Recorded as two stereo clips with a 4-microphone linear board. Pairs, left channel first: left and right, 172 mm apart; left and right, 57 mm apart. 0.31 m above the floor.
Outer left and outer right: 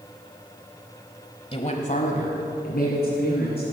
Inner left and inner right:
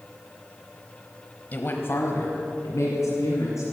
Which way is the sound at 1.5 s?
35° left (ahead or behind).